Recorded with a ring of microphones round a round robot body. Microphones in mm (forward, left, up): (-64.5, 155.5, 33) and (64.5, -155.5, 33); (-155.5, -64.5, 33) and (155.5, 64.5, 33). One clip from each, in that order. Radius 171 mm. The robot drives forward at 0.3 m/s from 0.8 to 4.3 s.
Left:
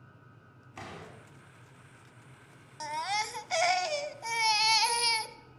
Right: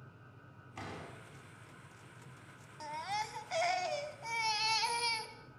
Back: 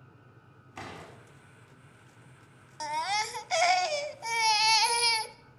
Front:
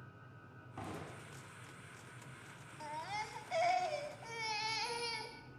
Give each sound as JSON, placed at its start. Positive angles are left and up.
{"t": 0.8, "sound": "a door slam", "azimuth_deg": -165, "distance_m": 5.5}
{"t": 2.8, "sound": "a baby crying", "azimuth_deg": 175, "distance_m": 0.6}